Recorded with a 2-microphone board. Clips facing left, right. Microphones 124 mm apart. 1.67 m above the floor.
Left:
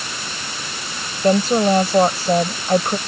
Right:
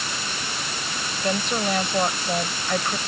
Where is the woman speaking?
35° left (ahead or behind).